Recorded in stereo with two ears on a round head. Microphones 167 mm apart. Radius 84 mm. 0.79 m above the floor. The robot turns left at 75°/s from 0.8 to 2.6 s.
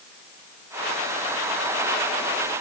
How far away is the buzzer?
I don't hear a buzzer.